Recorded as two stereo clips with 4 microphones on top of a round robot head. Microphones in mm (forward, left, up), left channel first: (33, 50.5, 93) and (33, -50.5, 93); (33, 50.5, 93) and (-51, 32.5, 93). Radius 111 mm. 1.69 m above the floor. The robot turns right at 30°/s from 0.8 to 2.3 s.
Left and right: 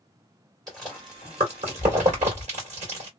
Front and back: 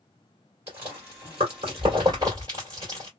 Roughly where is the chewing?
Behind right.